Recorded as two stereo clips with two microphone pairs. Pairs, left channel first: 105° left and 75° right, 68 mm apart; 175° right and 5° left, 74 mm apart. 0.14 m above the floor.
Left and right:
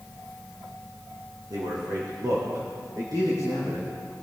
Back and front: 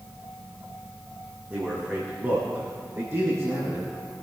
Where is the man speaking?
65° right, 5.5 m; by 3.9 s 45° right, 8.5 m.